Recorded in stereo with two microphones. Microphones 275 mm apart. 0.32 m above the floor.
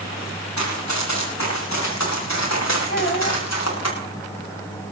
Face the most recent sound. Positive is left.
turn(degrees=40)  # may be behind; listen again after turning